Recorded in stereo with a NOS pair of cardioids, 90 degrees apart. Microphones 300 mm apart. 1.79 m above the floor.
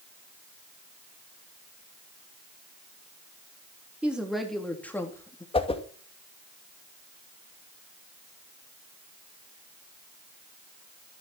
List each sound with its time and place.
4.0 s a woman speaking: 5° right, 3.5 m; by 5.4 s 10° left, 3.5 m
5.5 s a whoosh: 20° left, 2.5 m